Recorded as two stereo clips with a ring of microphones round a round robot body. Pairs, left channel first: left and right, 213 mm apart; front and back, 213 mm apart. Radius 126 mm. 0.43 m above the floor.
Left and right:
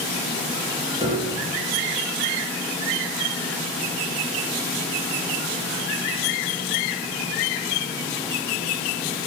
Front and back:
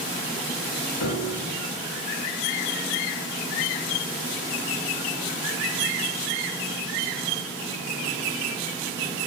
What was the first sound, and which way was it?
A piano, 20° right.